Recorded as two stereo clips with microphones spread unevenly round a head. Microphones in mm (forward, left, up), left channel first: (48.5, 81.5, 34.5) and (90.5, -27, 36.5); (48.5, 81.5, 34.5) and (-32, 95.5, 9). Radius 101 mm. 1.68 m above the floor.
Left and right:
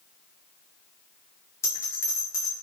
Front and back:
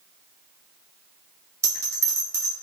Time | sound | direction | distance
1.6 | a bell | 140° left | 0.7 m